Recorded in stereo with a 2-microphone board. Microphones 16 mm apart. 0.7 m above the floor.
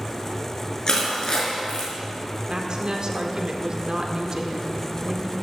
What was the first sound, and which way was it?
Crushing, 40° left (ahead or behind).